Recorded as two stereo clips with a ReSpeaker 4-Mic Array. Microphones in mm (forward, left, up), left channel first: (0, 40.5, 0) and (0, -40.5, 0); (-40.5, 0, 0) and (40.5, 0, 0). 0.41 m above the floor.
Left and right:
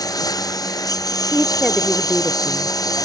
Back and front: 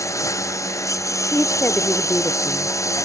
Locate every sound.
0.0 s a lawn mower: 130° left
1.3 s a woman speaking: 175° right